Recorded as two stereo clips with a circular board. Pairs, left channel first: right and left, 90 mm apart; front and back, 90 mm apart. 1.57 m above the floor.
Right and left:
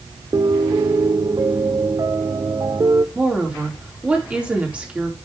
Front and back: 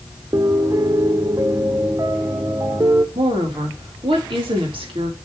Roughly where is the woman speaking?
Behind.